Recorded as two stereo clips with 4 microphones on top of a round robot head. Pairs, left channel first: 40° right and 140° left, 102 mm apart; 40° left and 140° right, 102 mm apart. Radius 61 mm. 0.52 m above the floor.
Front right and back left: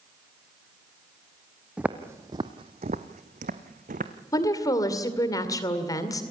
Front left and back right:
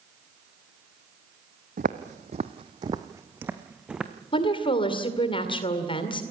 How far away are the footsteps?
About 1.1 m.